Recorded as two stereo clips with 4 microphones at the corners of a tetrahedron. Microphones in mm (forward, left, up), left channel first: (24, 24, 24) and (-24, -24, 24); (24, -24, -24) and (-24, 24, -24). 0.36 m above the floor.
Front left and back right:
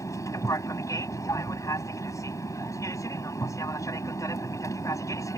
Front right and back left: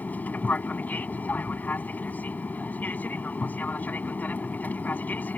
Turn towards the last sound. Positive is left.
turn(degrees=20)